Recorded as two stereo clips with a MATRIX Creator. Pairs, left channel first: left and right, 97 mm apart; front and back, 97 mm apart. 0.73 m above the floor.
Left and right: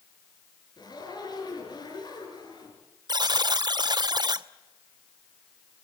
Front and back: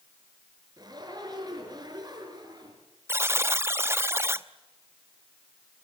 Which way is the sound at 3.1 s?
120° right.